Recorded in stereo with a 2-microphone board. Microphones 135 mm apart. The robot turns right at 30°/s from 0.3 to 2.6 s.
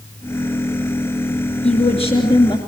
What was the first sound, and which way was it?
A woman speaking, 50° left (ahead or behind).